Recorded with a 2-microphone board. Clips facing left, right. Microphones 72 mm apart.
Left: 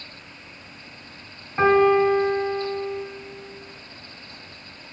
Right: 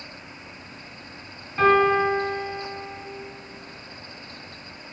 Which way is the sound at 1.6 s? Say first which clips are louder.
Left 2 dB; 25° left (ahead or behind).